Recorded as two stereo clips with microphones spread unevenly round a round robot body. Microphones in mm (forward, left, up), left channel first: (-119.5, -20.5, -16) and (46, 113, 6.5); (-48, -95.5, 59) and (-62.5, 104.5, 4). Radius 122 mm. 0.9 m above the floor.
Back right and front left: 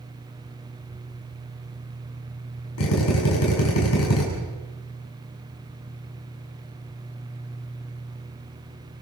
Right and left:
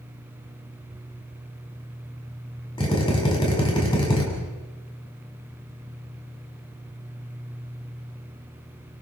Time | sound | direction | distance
2.8 | a drill | 155° right | 7.5 m